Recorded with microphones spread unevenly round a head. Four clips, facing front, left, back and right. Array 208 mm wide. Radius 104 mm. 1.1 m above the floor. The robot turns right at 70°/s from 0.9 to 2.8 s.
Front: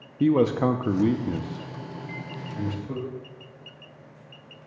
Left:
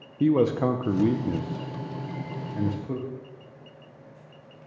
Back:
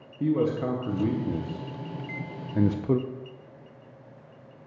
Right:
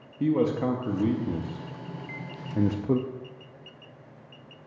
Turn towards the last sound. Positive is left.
turn(degrees=-100)